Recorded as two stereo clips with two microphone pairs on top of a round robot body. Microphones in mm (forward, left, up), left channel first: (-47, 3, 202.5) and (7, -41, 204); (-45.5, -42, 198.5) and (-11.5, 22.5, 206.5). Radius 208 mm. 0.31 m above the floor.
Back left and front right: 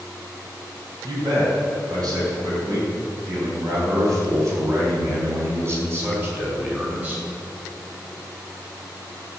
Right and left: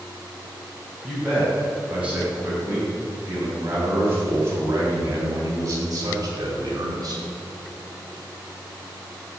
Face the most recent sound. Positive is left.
turn(degrees=25)